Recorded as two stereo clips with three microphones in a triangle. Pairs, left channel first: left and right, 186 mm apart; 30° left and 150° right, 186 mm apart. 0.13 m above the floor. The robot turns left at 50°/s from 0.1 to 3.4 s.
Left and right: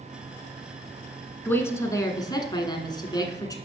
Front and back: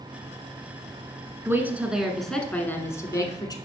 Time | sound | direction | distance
1.4 | a woman speaking | 155° left | 1.1 m